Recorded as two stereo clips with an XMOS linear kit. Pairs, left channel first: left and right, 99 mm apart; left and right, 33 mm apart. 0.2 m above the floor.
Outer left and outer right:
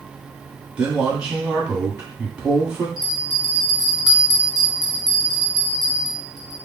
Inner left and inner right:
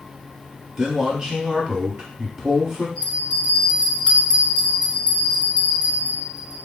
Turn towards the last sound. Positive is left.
turn(degrees=30)  # may be behind; listen again after turning